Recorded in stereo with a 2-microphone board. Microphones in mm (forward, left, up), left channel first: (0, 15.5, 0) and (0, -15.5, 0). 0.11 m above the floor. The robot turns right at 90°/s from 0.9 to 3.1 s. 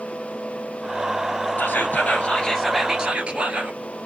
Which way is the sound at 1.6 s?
80° left.